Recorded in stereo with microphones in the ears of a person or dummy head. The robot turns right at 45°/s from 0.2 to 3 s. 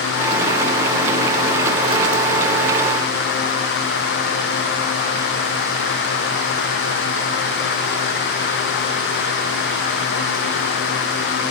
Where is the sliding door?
No sliding door in this recording.